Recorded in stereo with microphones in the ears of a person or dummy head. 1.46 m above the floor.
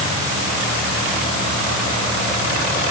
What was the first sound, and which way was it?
Only background noise.